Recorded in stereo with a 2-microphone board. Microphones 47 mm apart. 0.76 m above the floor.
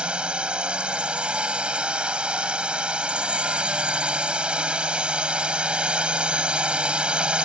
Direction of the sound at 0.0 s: 20° right (ahead or behind).